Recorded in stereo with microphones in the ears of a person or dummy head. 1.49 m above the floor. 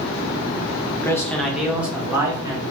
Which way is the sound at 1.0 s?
20° left (ahead or behind).